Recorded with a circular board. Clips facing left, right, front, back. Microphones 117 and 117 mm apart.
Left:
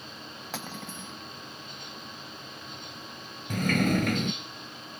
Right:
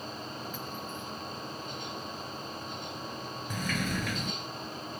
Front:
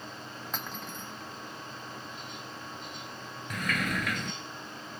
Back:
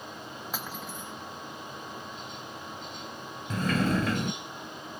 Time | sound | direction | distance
0.5 | cutlery clinking | 95° left | ?
3.5 | a sliding door | 120° left | ?